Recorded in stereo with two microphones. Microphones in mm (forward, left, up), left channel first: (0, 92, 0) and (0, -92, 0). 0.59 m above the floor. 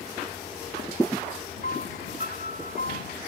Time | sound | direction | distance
1.6 | a piano | 55° left (ahead or behind) | ?